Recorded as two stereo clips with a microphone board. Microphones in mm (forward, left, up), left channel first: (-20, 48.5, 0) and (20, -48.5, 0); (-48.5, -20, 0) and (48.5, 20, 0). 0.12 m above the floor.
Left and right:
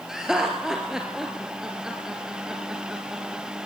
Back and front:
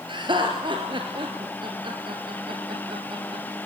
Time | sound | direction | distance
0.1 | laughter | 15° left | 1.9 m